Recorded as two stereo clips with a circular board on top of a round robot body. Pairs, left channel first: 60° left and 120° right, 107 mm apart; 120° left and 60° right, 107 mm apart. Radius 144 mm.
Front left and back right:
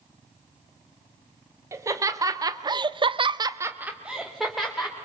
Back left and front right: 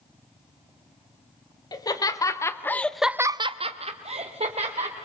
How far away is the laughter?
About 2.5 m.